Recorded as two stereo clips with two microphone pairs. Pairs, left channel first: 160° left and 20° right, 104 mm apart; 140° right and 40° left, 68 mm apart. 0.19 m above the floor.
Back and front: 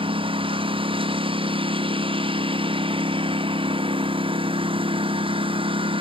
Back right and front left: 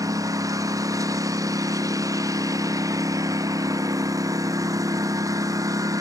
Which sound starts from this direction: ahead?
A lawn mower, at 0.0 s.